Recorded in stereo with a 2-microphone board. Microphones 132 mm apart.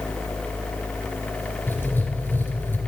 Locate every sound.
1.7 s writing: 15° left (ahead or behind), 2.5 m